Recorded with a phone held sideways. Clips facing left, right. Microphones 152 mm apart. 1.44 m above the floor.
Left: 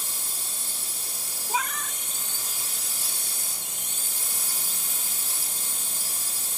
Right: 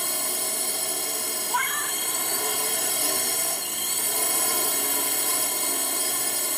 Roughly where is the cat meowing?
Centre.